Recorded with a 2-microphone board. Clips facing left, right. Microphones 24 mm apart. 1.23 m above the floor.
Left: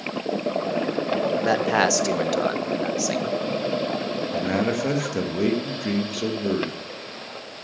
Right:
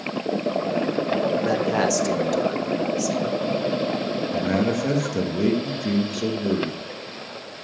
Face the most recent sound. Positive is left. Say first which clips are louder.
# right 1 dB
turn(degrees=15)  # may be behind; listen again after turning